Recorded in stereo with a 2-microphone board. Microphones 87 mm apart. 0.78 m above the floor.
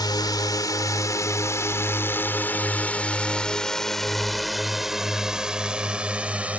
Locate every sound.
0.0 s a drone: 55° left (ahead or behind); by 6.6 s 15° right (ahead or behind)